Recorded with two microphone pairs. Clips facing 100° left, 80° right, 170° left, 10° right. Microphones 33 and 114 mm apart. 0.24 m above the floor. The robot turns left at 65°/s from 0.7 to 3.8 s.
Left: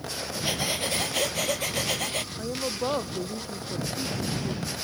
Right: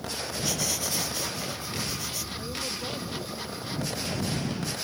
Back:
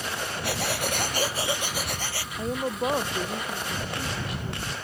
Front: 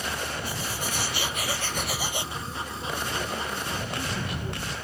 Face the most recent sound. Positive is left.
turn(degrees=75)